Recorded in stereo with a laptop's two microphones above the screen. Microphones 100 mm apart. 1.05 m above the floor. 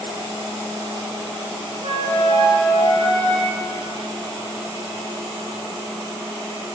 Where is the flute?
50° right (ahead or behind), 1.2 m.